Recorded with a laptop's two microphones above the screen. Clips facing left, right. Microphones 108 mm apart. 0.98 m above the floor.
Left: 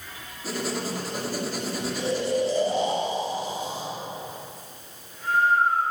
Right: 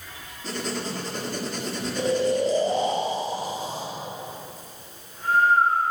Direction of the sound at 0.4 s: 5° left (ahead or behind).